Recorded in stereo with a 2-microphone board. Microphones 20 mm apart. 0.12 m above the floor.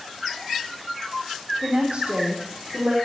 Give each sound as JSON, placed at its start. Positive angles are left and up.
{"t": 1.6, "sound": "a woman speaking", "side_deg": -70, "distance_m": 3.5}